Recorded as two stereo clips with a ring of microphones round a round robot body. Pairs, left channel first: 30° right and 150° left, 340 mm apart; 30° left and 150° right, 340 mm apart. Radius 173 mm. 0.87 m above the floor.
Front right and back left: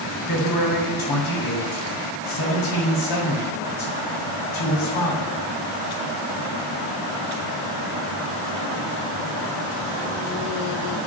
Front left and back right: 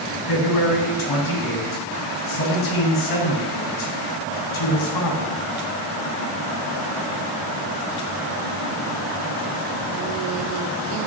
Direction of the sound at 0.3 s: Straight ahead.